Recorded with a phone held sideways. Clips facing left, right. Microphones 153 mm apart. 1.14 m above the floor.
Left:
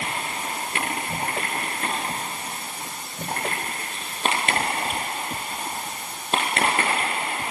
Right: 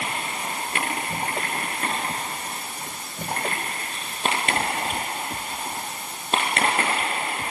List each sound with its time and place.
Only background noise.